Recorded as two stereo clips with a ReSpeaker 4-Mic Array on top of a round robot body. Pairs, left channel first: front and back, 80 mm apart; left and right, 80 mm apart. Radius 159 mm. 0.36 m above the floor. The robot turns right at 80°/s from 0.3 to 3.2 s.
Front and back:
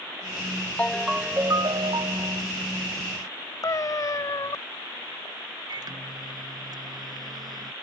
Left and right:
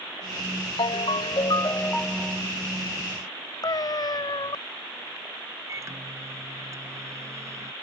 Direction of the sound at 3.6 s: 50° left.